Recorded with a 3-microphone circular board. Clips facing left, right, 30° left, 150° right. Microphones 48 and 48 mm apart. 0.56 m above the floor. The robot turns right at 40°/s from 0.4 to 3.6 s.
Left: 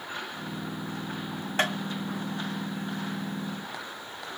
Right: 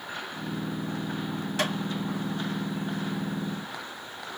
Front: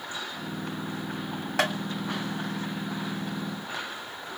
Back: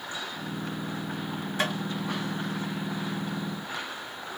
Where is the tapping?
35° left, 1.7 m; by 1.8 s 40° left, 1.7 m.